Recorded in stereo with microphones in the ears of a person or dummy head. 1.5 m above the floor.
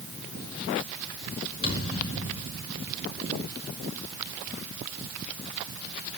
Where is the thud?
60° left (ahead or behind), 6 m.